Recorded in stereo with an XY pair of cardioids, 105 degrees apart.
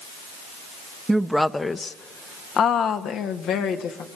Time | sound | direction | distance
1.1 | a woman speaking | 10° right | 0.9 m